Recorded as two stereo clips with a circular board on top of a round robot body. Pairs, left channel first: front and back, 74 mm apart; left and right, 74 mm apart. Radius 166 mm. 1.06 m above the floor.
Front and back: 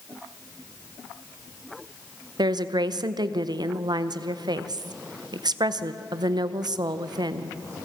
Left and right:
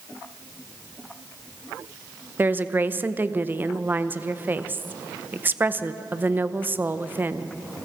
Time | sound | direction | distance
2.4 | a woman speaking | 155° right | 0.9 m